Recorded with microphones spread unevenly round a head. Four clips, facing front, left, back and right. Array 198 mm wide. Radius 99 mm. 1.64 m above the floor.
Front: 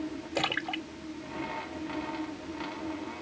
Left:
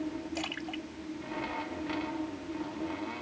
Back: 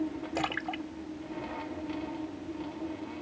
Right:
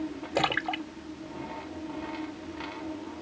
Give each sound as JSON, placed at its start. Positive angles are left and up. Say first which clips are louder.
{"t": 0.3, "sound": "a splash", "louder": "right 9 dB, front 2 dB", "azimuth_deg": -75}